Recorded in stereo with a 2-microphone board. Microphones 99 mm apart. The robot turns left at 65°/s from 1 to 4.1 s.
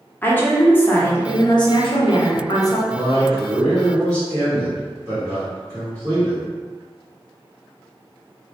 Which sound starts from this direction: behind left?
A woman speaking, at 0.2 s.